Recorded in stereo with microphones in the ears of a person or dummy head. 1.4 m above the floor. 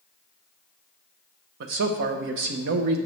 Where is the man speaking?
60° right (ahead or behind), 0.6 m.